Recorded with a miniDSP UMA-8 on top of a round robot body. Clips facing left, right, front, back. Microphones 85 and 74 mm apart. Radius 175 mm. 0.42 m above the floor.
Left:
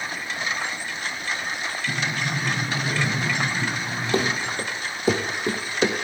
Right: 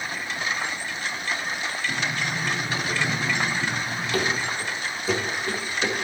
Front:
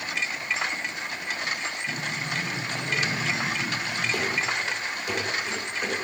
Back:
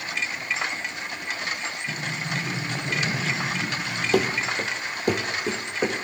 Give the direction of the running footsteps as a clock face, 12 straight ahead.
7 o'clock.